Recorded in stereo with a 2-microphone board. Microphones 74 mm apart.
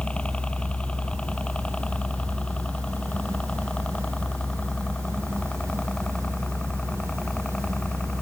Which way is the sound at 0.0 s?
15° left (ahead or behind).